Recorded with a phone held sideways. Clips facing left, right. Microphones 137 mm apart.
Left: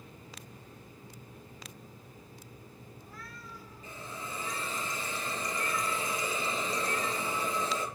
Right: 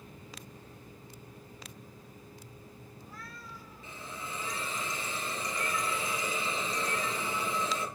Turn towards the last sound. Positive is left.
turn(degrees=40)  # may be behind; listen again after turning